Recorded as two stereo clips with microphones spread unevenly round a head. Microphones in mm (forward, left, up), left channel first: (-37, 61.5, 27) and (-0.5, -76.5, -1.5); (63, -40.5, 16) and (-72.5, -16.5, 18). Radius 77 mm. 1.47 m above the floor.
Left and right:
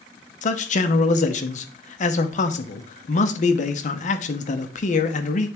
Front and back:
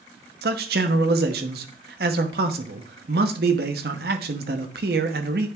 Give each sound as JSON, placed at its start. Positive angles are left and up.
{"t": 0.4, "sound": "a man speaking", "azimuth_deg": 140, "distance_m": 0.9}